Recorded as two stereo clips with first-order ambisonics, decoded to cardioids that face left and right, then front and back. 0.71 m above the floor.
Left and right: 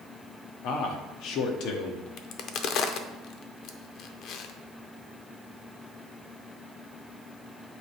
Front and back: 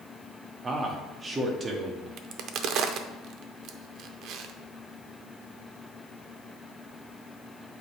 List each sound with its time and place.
0.6 s a man speaking: 110° left, 1.0 m
2.2 s a crack: 135° left, 0.6 m